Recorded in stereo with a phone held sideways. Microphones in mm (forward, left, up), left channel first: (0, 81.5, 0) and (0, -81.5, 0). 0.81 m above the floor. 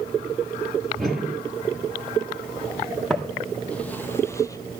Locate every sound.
1.0 s a whoosh: centre (ahead or behind), 5 m
3.1 s footsteps: centre (ahead or behind), 1.4 m; by 4.8 s 25° left (ahead or behind), 0.8 m